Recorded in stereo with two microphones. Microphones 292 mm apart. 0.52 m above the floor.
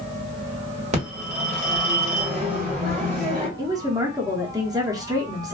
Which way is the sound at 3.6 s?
10° right (ahead or behind).